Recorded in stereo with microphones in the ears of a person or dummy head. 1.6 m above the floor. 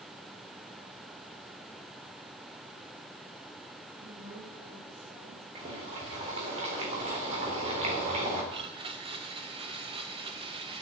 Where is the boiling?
35° right (ahead or behind), 3.5 m.